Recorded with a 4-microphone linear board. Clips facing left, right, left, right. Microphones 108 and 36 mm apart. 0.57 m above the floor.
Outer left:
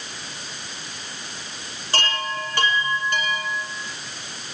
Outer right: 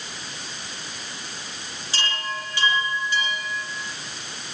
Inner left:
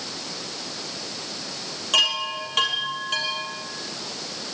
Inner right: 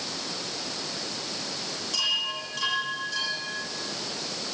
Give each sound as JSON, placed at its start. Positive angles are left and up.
{"t": 1.9, "sound": "a chime", "side_deg": 55, "distance_m": 6.5}